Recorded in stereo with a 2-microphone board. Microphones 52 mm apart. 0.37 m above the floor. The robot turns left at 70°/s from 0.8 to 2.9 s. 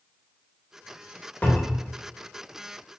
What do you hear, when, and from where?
1.4 s a cupboard door: 60° left, 0.8 m; by 1.9 s 25° left, 0.8 m